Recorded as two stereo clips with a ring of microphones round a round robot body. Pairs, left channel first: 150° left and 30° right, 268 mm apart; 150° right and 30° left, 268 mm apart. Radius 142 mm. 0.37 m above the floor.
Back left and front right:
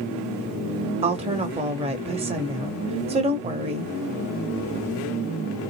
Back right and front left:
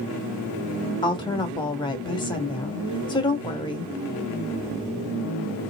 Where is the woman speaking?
85° right, 1.3 m.